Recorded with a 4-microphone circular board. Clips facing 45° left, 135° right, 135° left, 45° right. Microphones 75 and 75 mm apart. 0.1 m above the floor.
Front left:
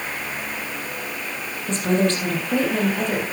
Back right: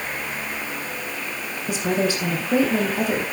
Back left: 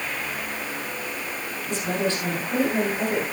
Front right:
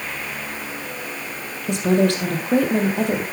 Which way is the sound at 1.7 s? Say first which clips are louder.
Front left 2 dB, front right 8 dB; 55° right.